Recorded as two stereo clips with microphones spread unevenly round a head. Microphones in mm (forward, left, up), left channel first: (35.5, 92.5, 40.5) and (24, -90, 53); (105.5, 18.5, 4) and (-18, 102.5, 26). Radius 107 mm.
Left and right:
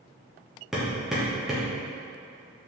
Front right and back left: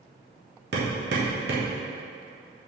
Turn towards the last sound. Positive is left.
turn(degrees=180)